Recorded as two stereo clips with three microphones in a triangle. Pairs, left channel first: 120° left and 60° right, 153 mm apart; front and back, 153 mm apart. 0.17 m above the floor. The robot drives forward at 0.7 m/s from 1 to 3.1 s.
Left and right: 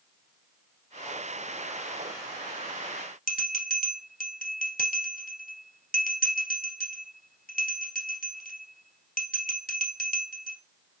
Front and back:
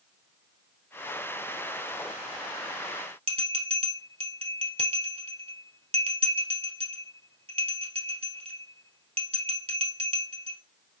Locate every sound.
3.3 s a bell: 135° left, 1.5 m